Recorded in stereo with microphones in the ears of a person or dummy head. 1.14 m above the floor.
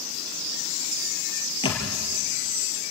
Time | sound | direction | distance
1.6 | a thud | 30° left (ahead or behind) | 4.5 m